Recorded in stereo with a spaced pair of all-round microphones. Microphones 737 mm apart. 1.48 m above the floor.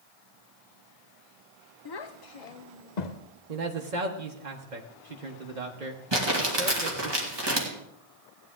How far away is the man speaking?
About 1.2 m.